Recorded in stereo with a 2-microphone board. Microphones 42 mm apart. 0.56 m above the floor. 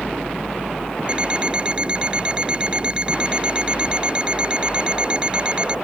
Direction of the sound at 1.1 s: 25° right (ahead or behind).